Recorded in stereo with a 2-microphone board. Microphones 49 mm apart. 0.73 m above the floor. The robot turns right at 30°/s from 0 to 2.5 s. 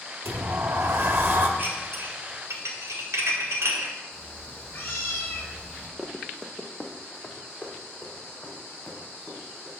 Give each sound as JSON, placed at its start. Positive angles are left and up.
{"t": 0.2, "sound": "a sliding door", "azimuth_deg": -85, "distance_m": 1.2}
{"t": 1.6, "sound": "dishes clattering", "side_deg": -50, "distance_m": 2.0}
{"t": 4.1, "sound": "a cat meowing", "side_deg": 30, "distance_m": 3.0}
{"t": 6.0, "sound": "running footsteps", "side_deg": -15, "distance_m": 0.8}